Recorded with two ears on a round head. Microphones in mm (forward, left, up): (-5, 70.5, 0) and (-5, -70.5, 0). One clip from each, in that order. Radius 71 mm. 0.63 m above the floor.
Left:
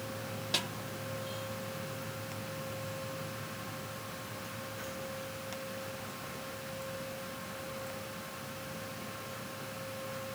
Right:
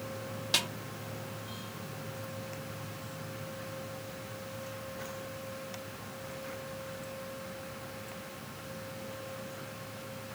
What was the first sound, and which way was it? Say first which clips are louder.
A snare drum: right 4 dB; 25° right (ahead or behind).